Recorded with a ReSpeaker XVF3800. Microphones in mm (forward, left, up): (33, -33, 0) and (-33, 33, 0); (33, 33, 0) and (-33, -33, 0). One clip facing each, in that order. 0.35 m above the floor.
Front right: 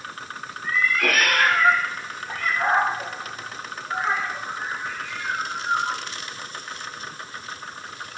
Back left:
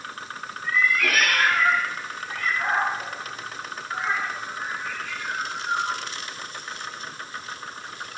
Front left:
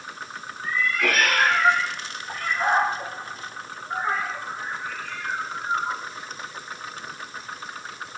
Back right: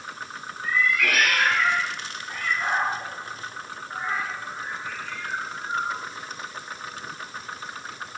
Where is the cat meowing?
10° right, 6.5 m; by 6.0 s 20° left, 7.5 m.